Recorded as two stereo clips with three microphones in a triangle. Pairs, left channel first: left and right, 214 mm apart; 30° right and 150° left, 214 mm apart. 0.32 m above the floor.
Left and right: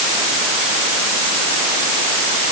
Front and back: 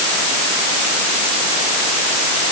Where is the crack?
No crack in this recording.